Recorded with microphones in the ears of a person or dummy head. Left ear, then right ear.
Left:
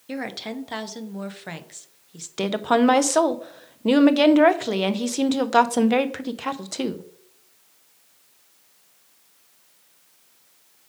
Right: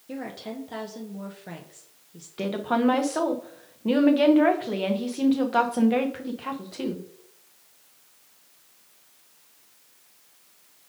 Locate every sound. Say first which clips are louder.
0.1 s a woman speaking: left 5 dB; 45° left (ahead or behind), 0.6 m
2.4 s a woman speaking: left 5 dB; 70° left (ahead or behind), 0.5 m